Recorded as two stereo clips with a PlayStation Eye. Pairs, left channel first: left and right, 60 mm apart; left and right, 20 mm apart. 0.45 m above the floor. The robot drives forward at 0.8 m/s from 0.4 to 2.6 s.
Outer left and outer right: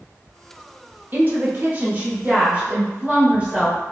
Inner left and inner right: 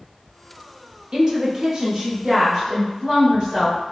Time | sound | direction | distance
1.1 | a woman speaking | 35° right (ahead or behind) | 0.9 m